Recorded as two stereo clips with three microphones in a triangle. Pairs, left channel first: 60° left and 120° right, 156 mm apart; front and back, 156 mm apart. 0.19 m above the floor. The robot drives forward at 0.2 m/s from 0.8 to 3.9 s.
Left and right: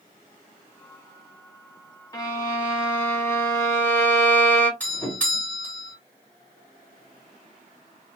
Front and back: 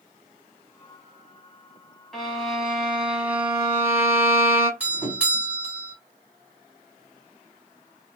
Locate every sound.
2.1 s a violin: 85° left, 1.3 m; by 4.7 s 115° left, 1.3 m
4.8 s a doorbell: 120° left, 2 m